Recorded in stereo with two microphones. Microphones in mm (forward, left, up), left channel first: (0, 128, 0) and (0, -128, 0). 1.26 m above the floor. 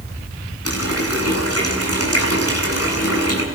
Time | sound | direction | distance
0.7 | a running tap | 70° left (ahead or behind) | 7 m